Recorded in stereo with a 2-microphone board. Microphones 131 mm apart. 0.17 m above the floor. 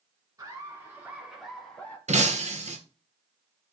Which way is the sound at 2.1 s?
65° right (ahead or behind).